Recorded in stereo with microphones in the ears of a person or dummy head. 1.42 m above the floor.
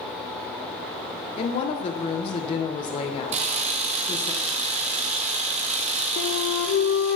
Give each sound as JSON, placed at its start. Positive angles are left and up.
{"t": 1.4, "sound": "a woman speaking", "side_deg": 35, "distance_m": 0.9}
{"t": 3.3, "sound": "a camera shutter", "side_deg": -35, "distance_m": 1.1}
{"t": 6.2, "sound": "a flute", "side_deg": 50, "distance_m": 0.7}